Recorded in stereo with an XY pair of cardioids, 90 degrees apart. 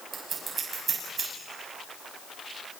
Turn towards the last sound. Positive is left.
turn(degrees=-50)